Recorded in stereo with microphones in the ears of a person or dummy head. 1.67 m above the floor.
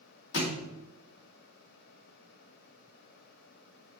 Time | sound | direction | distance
0.3 | a thud | 60° left (ahead or behind) | 1.8 m